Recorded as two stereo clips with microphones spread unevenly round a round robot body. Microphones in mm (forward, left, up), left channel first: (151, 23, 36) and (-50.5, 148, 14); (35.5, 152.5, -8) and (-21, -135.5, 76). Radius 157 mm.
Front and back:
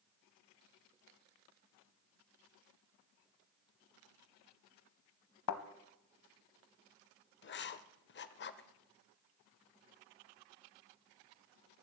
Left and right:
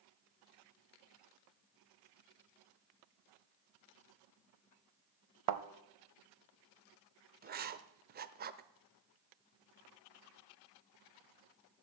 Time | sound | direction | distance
5.5 | a thud | 60° right | 0.8 m
7.4 | writing | 35° right | 0.7 m